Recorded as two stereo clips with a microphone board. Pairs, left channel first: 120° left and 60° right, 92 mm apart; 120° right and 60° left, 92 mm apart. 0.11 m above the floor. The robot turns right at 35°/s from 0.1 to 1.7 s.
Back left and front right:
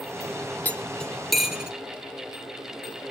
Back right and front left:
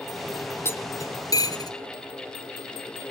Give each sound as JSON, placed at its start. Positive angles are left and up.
{"t": 0.7, "sound": "cutlery clinking", "azimuth_deg": -175, "distance_m": 1.3}